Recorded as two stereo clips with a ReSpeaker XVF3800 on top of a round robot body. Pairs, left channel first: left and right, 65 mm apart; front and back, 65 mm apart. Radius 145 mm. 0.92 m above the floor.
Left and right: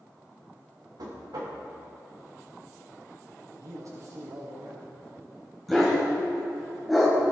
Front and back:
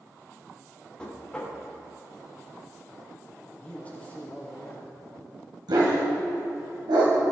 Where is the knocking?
75° right, 2.5 m.